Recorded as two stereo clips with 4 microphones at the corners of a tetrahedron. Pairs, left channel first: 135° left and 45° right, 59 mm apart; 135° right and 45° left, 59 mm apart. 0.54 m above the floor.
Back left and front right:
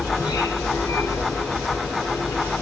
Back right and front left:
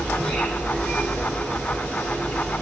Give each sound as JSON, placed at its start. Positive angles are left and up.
{"t": 0.0, "sound": "an insect", "azimuth_deg": 145, "distance_m": 6.0}